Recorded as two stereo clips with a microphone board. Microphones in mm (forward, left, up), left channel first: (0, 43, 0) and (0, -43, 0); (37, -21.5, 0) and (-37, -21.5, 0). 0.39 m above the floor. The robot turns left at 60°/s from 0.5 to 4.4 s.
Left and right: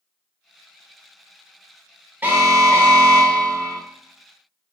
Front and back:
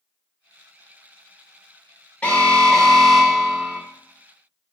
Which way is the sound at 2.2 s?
45° right.